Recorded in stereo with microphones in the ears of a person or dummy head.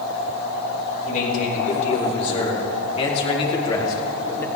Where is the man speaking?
45° left (ahead or behind), 4.5 m; by 4.5 s 10° left (ahead or behind), 2 m.